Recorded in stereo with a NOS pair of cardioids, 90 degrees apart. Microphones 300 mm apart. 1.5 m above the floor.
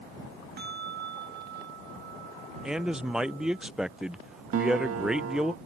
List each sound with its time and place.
0.6 s a bell: 35° right
2.6 s a man speaking: straight ahead
4.5 s a guitar: 50° right